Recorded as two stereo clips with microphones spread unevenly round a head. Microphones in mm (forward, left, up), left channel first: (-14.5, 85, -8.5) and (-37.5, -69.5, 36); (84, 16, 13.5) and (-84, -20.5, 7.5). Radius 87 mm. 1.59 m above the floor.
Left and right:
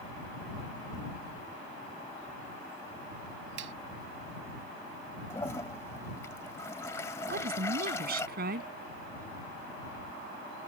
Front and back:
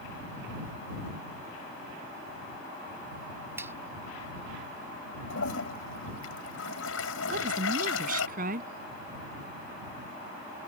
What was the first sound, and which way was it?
A finger snap, 90° right.